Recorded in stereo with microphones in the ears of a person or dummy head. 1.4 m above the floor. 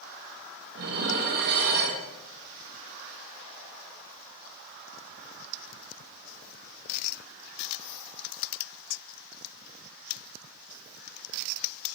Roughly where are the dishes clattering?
Right.